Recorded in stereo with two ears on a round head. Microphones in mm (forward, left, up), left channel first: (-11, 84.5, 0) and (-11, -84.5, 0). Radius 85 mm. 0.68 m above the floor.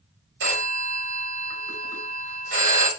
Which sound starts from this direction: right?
A phone ringing, at 0.4 s.